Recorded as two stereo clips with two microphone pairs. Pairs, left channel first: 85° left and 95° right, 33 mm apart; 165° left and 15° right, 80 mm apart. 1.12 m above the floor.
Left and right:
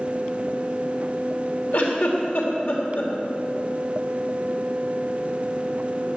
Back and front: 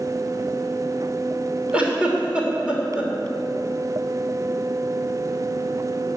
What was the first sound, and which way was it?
A giggle, 65° left.